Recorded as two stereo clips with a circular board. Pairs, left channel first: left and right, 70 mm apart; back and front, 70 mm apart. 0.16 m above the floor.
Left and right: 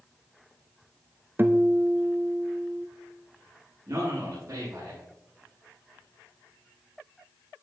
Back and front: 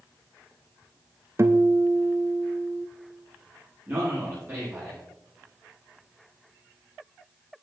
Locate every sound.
1.4 s a guitar: 35° right, 0.6 m
3.9 s a man speaking: 55° right, 5 m